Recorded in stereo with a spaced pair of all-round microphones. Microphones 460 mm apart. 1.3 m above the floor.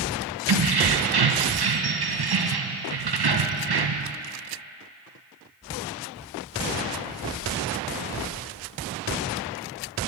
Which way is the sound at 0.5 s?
55° right (ahead or behind).